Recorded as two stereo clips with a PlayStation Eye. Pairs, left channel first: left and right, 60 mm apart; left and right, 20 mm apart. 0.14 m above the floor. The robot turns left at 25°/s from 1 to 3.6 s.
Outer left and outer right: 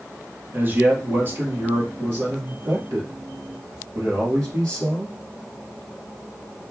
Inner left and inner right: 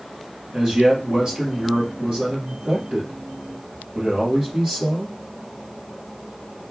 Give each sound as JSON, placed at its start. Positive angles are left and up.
{"t": 0.5, "sound": "a man speaking", "azimuth_deg": -40, "distance_m": 3.5}